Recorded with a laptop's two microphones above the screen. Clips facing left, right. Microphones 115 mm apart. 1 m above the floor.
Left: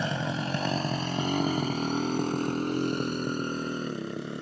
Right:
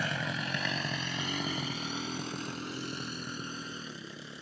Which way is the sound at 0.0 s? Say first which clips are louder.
Left 5 dB; 25° left (ahead or behind).